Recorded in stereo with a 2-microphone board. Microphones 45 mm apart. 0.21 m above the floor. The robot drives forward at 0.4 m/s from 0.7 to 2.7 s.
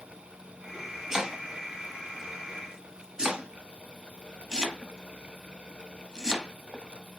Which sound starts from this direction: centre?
Chopping, at 1.1 s.